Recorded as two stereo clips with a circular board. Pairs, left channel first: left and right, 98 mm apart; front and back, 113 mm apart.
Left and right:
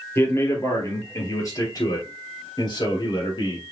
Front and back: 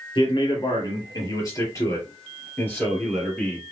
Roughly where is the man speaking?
Ahead left.